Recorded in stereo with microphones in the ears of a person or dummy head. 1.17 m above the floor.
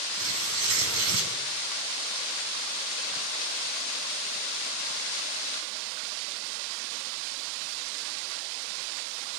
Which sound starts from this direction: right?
Tearing paper, at 0.1 s.